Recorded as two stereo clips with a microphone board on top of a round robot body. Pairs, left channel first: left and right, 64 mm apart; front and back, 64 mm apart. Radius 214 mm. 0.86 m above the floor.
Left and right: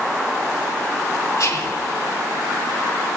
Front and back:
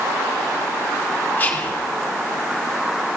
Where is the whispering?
60° left, 2.5 m.